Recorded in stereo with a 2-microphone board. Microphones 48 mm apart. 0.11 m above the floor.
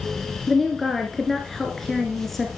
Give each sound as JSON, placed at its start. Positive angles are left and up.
{"t": 0.5, "sound": "a woman speaking", "side_deg": 5, "distance_m": 1.6}